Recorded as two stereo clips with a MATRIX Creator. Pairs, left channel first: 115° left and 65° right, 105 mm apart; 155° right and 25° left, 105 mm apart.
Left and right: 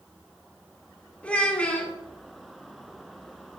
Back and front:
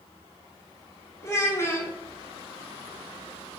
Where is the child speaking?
Straight behind, 0.8 m.